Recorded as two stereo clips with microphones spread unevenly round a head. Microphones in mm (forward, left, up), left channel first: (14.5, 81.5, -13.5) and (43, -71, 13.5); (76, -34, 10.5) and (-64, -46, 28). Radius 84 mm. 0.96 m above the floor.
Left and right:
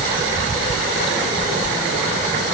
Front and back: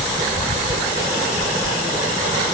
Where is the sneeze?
I don't hear a sneeze.